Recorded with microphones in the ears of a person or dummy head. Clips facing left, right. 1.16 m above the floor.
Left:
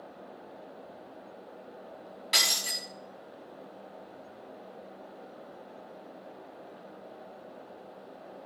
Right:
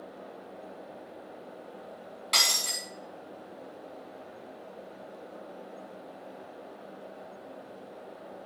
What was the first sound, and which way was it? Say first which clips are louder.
Breaking glass: right 1 dB; 15° left (ahead or behind).